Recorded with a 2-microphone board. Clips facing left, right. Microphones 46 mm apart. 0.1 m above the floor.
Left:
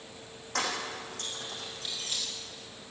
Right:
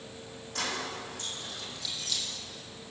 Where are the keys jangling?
65° left (ahead or behind), 4 m; by 2.2 s 35° left (ahead or behind), 2.5 m.